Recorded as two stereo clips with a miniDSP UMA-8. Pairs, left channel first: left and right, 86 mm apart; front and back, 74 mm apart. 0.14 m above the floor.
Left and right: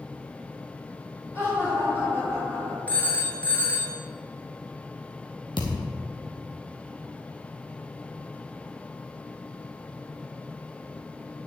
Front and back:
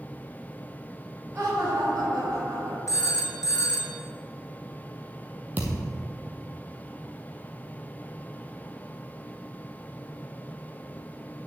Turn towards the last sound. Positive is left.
turn(degrees=115)